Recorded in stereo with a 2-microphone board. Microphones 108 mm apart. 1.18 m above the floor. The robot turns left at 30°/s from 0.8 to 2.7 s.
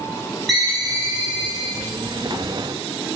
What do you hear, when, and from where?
0.5 s a ringtone: straight behind, 1.0 m; by 1.9 s 145° left, 1.0 m